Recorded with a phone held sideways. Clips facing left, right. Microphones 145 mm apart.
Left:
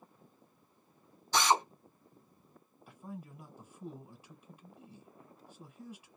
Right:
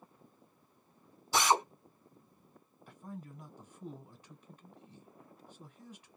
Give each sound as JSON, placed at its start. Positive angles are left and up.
{"t": 1.3, "sound": "a drill", "side_deg": -10, "distance_m": 1.4}
{"t": 2.9, "sound": "a man speaking", "side_deg": 10, "distance_m": 1.3}